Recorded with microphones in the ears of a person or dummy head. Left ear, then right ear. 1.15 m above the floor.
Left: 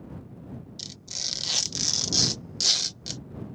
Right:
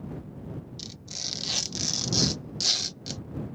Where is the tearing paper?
15° left (ahead or behind).